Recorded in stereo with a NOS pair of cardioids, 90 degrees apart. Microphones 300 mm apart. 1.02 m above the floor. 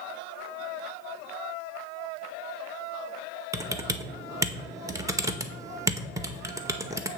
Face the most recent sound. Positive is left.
turn(degrees=-10)